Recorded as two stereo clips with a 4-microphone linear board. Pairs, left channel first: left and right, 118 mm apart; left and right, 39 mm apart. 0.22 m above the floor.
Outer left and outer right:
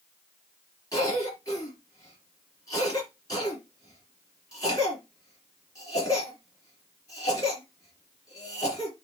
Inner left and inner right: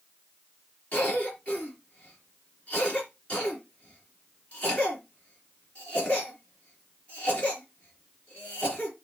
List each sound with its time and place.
0.9 s a cough: 30° left (ahead or behind), 4 m